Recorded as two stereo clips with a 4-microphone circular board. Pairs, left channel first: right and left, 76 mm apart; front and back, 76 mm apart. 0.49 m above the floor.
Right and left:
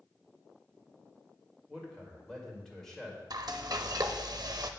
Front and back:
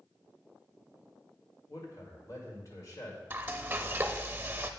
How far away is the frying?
About 0.6 m.